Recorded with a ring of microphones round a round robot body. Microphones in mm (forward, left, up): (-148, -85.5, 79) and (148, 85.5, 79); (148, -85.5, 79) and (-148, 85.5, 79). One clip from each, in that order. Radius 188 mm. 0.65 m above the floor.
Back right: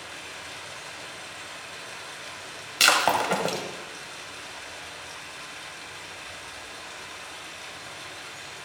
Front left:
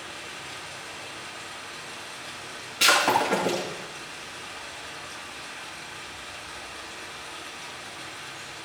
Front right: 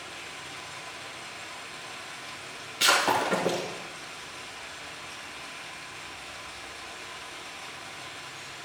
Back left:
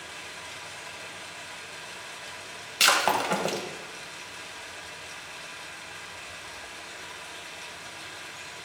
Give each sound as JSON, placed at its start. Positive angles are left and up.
{"t": 0.0, "sound": "running water", "azimuth_deg": -165, "distance_m": 2.5}
{"t": 2.8, "sound": "breaking glass", "azimuth_deg": -170, "distance_m": 2.0}